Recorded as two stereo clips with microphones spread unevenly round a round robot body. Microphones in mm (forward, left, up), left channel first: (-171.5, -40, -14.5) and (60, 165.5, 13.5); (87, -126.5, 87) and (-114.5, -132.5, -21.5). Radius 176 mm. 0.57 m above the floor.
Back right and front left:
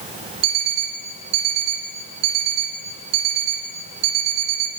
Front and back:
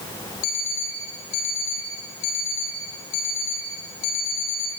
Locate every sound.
0.4 s an alarm clock: 30° left, 3.5 m